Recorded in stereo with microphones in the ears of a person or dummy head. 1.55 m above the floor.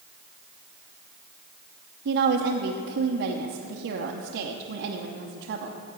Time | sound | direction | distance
2.0 | a woman speaking | 55° right (ahead or behind) | 0.7 m